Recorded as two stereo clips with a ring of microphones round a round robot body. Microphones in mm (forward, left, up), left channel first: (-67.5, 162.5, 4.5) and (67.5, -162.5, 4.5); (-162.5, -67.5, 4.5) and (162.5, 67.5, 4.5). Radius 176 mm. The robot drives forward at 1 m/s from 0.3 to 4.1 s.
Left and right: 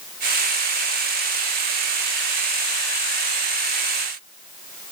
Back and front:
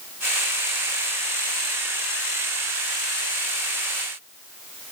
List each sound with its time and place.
Only background noise.